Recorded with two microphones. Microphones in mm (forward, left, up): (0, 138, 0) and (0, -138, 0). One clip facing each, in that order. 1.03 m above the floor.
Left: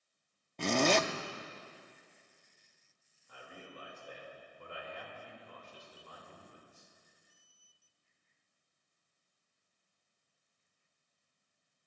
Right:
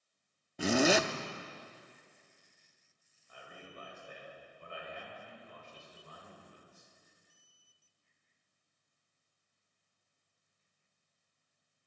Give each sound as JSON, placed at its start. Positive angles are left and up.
{"t": 0.6, "sound": "a zipper", "side_deg": -5, "distance_m": 0.5}
{"t": 3.3, "sound": "a man speaking", "side_deg": 85, "distance_m": 4.0}